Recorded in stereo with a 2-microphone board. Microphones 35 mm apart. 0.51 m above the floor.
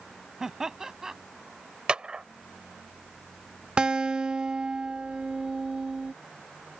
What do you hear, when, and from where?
0.4 s laughter: 15° right (ahead or behind)
1.9 s a clap: 30° right (ahead or behind)
3.8 s a guitar: 25° right (ahead or behind)